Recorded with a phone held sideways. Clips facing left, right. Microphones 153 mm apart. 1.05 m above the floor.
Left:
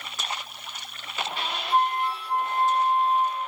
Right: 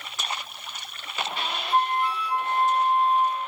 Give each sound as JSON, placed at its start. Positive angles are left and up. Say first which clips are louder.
{"t": 1.7, "sound": "a flute", "louder": "even", "side_deg": -65, "distance_m": 1.6}